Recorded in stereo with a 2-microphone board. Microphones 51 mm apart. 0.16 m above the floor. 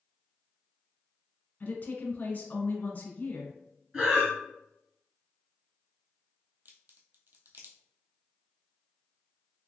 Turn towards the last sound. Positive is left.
turn(degrees=-45)  # may be behind; listen again after turning